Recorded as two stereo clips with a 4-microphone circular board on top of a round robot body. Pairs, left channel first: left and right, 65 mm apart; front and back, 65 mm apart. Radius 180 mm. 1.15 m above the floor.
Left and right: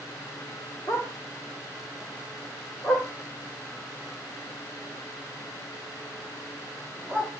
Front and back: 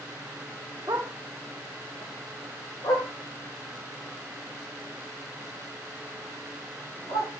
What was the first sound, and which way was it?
A dog barking, 145° left.